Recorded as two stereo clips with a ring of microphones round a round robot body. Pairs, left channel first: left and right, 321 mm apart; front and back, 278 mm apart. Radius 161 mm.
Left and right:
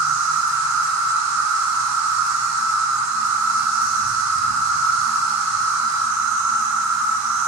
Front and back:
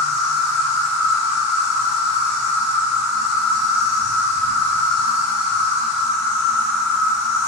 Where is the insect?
45° right, 1.1 m.